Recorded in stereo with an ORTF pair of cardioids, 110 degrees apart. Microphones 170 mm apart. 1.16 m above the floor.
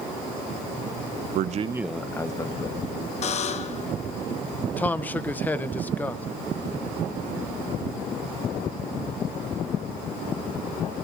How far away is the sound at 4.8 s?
About 0.7 m.